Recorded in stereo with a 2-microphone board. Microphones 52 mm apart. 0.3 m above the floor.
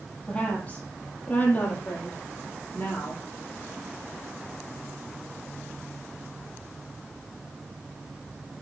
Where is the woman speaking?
20° left (ahead or behind), 7 m; by 3.2 s 35° left (ahead or behind), 8 m.